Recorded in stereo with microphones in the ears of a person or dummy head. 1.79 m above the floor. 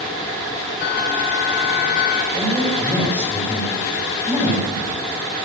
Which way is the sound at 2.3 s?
10° right (ahead or behind).